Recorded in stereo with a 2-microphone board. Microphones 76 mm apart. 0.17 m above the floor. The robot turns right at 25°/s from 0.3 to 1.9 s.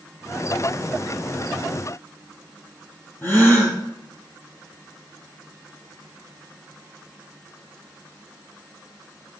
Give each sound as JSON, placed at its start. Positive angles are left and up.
{"t": 3.2, "sound": "a gasp", "side_deg": 30, "distance_m": 2.5}